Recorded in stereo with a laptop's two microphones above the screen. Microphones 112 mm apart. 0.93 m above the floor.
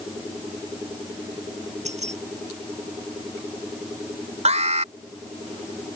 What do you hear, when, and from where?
1.9 s keys jangling: 85° right
4.5 s an alarm: 80° right